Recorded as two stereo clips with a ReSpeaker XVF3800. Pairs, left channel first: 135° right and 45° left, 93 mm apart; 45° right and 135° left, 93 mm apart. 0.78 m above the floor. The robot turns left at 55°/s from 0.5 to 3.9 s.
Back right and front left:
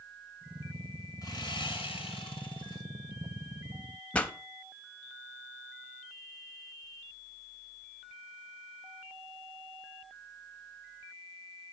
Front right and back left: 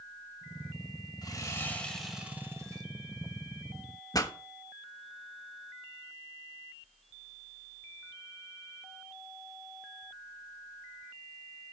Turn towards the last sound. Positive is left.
turn(degrees=-65)